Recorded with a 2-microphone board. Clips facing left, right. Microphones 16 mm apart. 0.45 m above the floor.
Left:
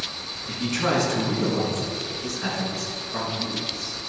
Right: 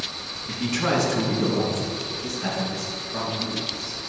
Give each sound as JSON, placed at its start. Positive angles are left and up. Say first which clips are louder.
{"t": 0.5, "sound": "a man speaking", "louder": "even", "side_deg": -5, "distance_m": 3.0}